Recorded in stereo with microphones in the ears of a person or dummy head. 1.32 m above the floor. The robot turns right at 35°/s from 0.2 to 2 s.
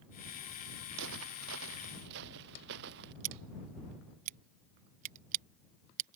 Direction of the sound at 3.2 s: 45° right (ahead or behind).